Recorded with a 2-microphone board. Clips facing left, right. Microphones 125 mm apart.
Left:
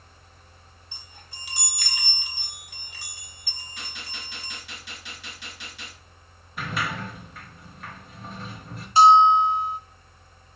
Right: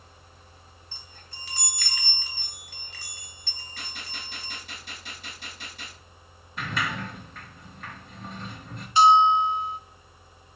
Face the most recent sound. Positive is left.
turn(degrees=35)  # may be behind; listen again after turning